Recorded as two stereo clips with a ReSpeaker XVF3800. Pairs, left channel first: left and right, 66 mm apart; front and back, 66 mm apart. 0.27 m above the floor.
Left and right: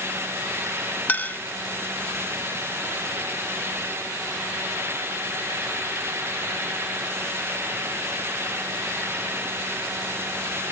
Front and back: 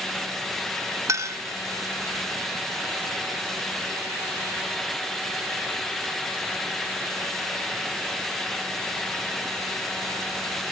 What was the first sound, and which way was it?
A clink, 150° left.